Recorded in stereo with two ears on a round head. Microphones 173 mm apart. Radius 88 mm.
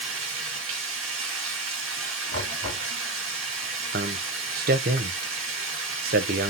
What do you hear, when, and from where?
0.0 s running water: 75° right (ahead or behind), 1.9 m
2.3 s knocking: 75° right (ahead or behind), 3.5 m
3.9 s a man speaking: 50° right (ahead or behind), 0.6 m